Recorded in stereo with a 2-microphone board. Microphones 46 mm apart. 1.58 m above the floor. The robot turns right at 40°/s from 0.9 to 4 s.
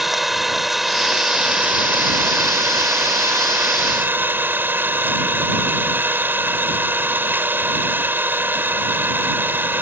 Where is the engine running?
175° right; by 9.8 s 50° right.